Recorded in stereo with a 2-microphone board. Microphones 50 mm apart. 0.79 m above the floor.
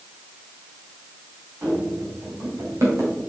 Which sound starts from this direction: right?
Running footsteps, at 1.6 s.